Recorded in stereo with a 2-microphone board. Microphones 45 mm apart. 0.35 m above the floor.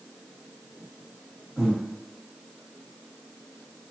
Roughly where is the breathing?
Centre.